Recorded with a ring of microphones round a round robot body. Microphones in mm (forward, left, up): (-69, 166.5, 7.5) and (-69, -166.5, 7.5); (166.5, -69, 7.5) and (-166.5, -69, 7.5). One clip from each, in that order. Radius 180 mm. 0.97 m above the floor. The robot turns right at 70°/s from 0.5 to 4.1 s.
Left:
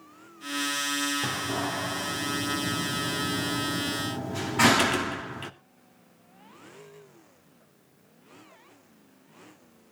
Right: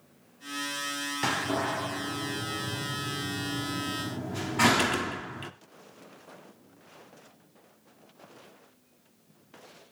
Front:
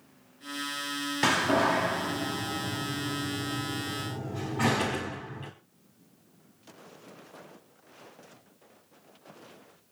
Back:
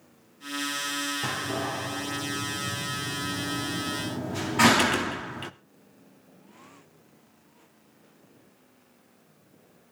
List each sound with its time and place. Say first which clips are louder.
1.2 s a door slam: right 1 dB, front 6 dB; 30° right, 1.3 m; by 5.5 s 170° left, 1.3 m